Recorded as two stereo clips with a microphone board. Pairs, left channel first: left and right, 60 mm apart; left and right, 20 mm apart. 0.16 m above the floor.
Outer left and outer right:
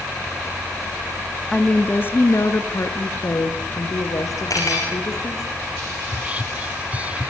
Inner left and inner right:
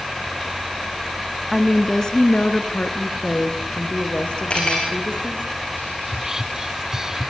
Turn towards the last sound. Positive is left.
turn(degrees=-25)  # may be behind; listen again after turning